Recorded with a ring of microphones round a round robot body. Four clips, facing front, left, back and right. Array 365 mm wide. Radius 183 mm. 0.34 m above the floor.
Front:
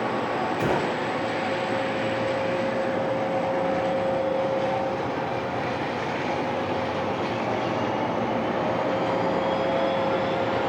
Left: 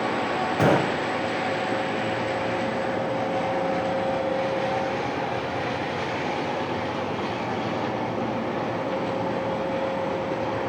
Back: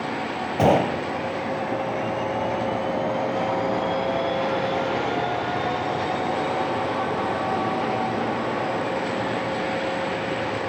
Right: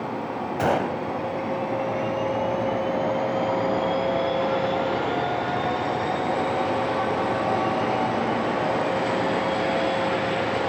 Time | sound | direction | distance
0.6 | a gunshot | 155° left | 1.3 m